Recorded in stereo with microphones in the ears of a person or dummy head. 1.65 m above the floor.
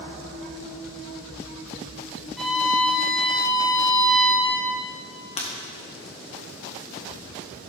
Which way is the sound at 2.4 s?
Centre (ahead or behind).